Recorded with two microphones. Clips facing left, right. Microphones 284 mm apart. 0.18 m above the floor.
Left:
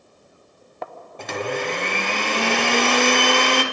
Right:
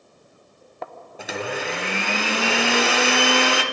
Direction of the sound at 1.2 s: 5° right (ahead or behind).